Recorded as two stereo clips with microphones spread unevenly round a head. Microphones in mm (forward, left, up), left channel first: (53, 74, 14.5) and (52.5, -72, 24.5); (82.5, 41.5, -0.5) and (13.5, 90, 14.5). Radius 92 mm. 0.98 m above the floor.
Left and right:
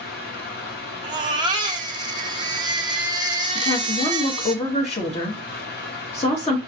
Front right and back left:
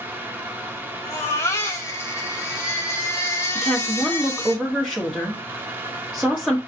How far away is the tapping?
No tapping in this recording.